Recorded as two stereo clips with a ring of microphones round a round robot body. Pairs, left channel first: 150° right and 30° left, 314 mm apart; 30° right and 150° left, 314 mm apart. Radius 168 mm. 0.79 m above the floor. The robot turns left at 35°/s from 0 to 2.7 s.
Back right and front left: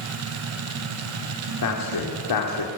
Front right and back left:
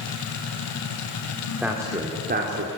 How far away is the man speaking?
About 2.5 m.